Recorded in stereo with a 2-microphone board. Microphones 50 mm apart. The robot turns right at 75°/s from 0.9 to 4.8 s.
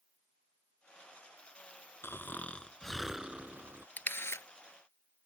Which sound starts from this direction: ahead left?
A camera shutter, at 4.0 s.